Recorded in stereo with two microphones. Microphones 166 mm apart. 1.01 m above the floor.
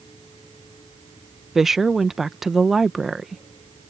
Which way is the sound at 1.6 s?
Centre (ahead or behind).